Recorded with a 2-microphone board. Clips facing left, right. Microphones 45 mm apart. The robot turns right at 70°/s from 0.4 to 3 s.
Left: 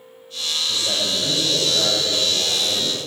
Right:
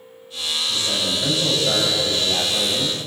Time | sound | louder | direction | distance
0.7 | a man speaking | even | 145° left | 7 m